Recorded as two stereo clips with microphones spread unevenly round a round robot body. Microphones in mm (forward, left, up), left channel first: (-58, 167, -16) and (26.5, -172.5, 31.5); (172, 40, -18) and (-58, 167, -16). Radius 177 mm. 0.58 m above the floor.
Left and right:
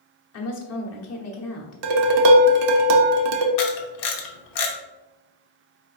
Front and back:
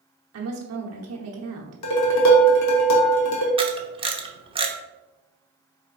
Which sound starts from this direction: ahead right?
Dishes clattering, at 1.8 s.